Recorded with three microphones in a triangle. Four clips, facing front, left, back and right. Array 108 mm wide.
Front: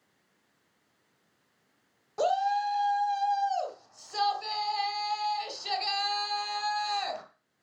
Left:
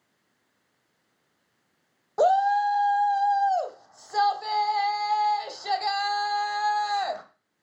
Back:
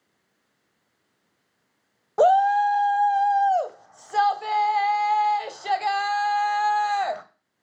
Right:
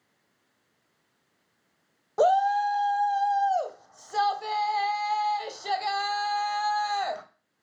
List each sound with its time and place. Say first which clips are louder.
2.2 s a shout: left 1 dB, back 10 dB; 175° left, 1.6 m